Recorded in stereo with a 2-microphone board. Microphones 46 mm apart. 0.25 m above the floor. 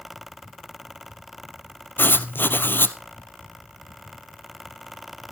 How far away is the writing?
About 1.0 m.